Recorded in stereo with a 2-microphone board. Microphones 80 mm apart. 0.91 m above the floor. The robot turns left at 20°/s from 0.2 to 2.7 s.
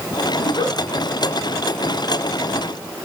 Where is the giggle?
85° left, 7.5 m.